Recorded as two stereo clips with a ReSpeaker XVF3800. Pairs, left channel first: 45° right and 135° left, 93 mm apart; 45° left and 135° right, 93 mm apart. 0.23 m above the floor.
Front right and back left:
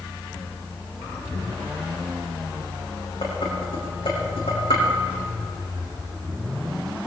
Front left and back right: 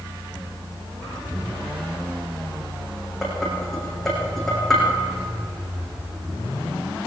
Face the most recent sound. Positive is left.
turn(degrees=-40)